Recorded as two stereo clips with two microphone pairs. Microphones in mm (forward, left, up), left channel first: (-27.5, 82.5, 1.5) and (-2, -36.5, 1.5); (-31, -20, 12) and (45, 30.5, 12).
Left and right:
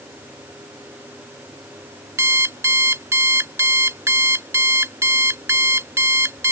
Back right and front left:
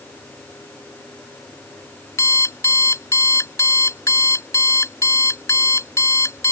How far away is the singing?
I don't hear singing.